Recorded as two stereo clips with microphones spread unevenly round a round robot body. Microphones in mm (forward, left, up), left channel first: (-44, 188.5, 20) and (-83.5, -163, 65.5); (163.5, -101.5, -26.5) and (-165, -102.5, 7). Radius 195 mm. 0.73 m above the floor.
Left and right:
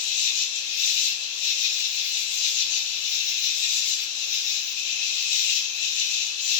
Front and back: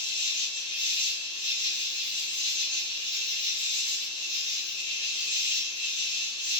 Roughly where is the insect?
Left.